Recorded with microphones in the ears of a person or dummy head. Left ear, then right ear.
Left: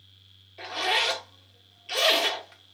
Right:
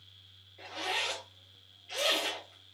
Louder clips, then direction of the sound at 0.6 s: Left 8 dB; 55° left (ahead or behind).